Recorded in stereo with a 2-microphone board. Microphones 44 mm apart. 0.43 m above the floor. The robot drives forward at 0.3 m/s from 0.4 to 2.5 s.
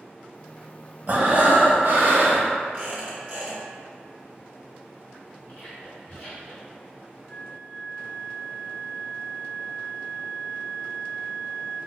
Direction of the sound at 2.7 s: 40° right (ahead or behind).